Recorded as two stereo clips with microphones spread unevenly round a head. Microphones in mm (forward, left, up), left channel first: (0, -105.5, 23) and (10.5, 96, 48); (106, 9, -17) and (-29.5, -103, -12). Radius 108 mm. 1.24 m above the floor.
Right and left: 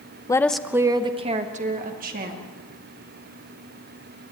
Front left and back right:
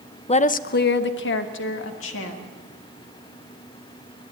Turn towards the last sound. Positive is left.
turn(degrees=40)